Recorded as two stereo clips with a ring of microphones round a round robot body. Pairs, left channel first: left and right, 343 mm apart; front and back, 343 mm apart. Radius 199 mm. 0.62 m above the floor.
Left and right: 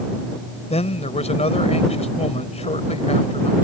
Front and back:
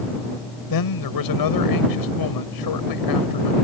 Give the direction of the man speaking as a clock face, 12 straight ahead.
11 o'clock.